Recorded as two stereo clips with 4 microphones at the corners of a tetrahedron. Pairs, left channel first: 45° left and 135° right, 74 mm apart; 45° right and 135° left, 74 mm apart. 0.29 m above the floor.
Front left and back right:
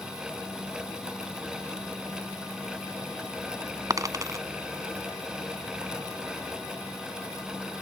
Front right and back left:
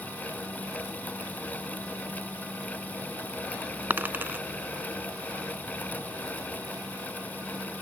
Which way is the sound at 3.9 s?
165° right.